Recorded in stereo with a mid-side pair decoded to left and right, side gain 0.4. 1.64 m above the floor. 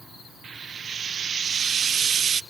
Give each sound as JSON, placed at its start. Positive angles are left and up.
{"t": 0.4, "sound": "frying", "azimuth_deg": -60, "distance_m": 0.6}